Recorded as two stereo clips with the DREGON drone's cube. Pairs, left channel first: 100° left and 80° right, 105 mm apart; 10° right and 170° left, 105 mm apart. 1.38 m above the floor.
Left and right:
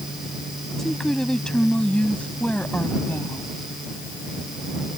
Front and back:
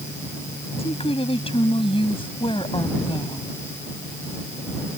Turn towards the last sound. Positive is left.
turn(degrees=30)